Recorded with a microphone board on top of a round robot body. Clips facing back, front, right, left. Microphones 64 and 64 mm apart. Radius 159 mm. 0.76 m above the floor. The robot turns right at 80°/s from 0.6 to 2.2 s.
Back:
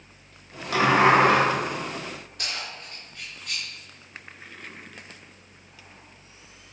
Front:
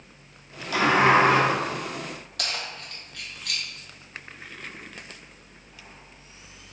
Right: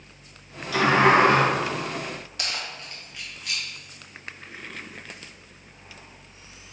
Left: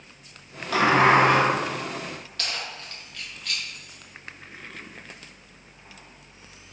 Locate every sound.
0.7 s a sliding door: 125° left, 2 m; by 1.4 s straight behind, 2 m
2.4 s keys jangling: 15° right, 1.4 m